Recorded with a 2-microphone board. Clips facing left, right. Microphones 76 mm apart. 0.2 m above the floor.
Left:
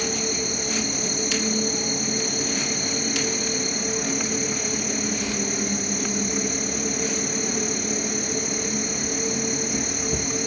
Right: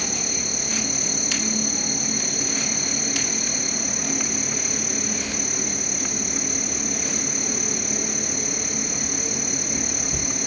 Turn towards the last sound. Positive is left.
turn(degrees=45)  # may be behind; listen again after turning